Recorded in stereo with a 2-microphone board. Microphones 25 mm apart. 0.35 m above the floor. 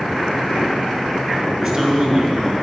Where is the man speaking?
5° right (ahead or behind), 5 m.